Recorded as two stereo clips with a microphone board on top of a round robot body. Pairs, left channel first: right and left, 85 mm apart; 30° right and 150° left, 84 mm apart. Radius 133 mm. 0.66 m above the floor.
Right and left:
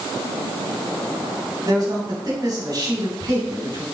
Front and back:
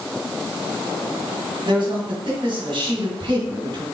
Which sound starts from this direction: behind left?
A man speaking, at 1.6 s.